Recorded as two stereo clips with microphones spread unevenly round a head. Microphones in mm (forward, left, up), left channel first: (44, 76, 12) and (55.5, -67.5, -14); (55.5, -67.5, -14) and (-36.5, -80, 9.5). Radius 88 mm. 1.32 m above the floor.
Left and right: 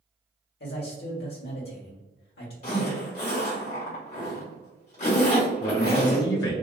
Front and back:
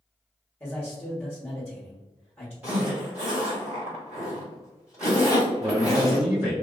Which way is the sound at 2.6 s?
120° left.